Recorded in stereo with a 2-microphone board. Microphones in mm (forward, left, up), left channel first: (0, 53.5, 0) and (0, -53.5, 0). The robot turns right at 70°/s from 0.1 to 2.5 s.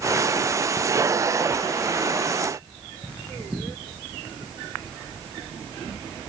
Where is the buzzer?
No buzzer in this recording.